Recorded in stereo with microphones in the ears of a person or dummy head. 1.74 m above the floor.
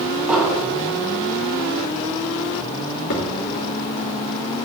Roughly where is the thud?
Left.